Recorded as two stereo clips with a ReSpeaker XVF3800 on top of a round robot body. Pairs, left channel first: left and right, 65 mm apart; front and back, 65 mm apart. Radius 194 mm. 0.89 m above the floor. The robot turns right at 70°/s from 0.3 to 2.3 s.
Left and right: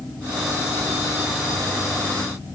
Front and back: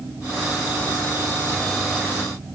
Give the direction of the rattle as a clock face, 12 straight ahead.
I don't hear a rattle.